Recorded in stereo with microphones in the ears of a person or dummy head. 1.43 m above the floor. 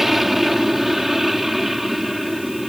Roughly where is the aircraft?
Centre.